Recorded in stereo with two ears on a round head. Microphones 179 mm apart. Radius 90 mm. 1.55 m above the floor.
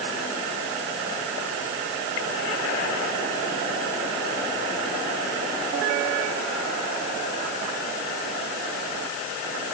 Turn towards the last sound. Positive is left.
No sound to turn to.